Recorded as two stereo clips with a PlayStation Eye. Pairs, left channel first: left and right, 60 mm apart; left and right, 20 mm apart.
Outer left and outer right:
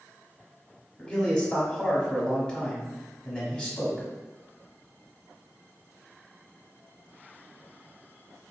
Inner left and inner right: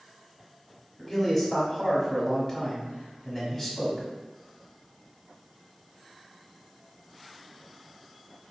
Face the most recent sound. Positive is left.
turn(degrees=15)  # may be behind; listen again after turning